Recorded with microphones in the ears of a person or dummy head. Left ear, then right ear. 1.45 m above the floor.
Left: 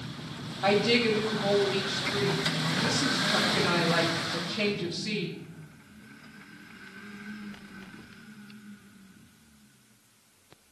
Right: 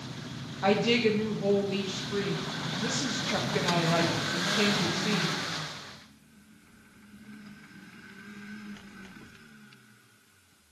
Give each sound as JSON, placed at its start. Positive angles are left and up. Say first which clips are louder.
{"t": 0.6, "sound": "a woman speaking", "louder": "left 1 dB", "side_deg": -25, "distance_m": 0.9}